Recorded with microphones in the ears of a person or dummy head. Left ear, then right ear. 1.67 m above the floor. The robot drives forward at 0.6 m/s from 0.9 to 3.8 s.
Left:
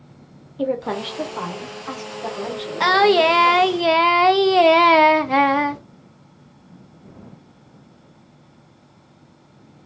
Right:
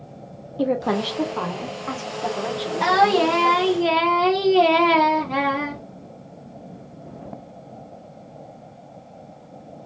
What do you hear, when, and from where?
0.6 s a woman speaking: 5° right (ahead or behind), 0.5 m; by 3.8 s centre (ahead or behind), 2 m
2.8 s singing: 35° left (ahead or behind), 0.7 m; by 5.8 s 55° left (ahead or behind), 0.5 m